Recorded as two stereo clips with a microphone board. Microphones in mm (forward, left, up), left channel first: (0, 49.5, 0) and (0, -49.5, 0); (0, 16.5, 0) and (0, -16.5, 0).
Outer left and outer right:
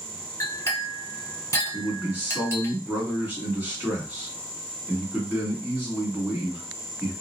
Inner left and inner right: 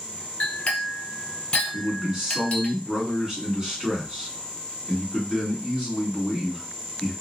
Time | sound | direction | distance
0.4 | a clink | 30° left (ahead or behind) | 1.4 m
1.7 | a man speaking | 20° right (ahead or behind) | 1.4 m